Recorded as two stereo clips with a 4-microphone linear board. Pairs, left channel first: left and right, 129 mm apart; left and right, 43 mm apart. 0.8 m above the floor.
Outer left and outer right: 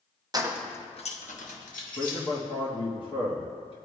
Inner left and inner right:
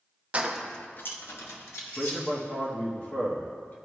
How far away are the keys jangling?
About 0.6 m.